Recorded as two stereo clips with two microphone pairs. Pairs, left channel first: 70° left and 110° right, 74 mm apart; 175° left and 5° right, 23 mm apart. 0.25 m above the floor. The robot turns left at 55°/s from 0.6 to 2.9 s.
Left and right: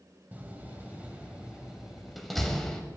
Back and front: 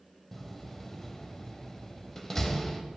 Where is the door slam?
120° right, 0.6 m; by 2.8 s 120° left, 0.6 m.